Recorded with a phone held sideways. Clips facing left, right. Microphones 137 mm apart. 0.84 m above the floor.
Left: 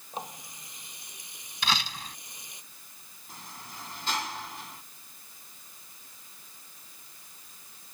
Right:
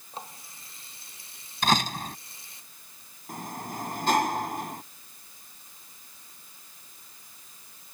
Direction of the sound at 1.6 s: 45° right (ahead or behind).